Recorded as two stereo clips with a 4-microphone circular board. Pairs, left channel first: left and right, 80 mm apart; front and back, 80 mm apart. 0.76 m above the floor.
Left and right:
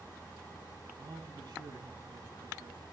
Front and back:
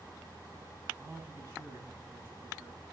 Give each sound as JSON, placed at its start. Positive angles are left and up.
{"t": 1.0, "sound": "a man speaking", "azimuth_deg": -130, "distance_m": 4.5}